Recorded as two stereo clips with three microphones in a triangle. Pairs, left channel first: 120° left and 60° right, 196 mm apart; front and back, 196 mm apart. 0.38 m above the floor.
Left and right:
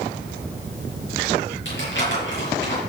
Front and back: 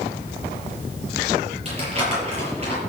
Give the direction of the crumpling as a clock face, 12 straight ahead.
8 o'clock.